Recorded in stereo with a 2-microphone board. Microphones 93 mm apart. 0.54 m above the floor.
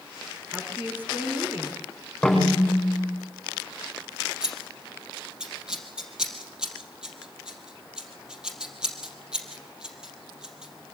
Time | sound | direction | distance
0.5 | a woman speaking | 25° right (ahead or behind) | 4 m
2.2 | a snare drum | 5° left (ahead or behind) | 6.5 m
4.4 | scissors | 10° right (ahead or behind) | 3.5 m